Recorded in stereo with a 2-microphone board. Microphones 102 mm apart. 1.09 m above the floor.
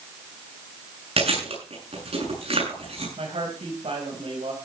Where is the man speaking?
80° right, 5.5 m.